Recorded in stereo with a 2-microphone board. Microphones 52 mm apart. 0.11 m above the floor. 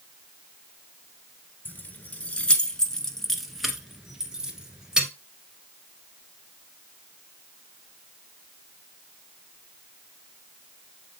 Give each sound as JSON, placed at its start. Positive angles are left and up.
{"t": 1.6, "sound": "keys jangling", "side_deg": 35, "distance_m": 1.2}